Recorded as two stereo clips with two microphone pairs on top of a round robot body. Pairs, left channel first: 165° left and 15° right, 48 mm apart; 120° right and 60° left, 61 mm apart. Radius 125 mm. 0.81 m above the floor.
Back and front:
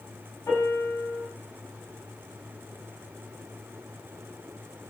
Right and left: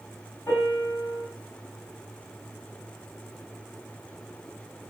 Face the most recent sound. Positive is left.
turn(degrees=-175)